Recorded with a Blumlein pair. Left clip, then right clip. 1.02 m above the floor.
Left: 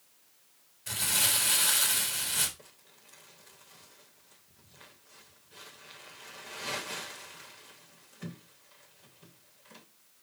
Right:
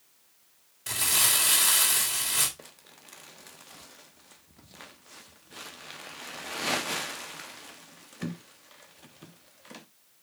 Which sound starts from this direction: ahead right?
Crumpling, at 2.6 s.